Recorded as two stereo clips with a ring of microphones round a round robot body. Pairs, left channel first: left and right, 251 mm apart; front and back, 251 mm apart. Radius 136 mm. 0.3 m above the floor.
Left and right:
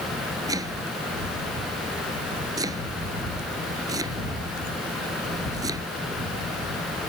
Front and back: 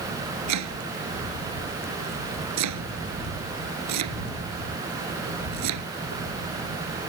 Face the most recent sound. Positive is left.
turn(degrees=-170)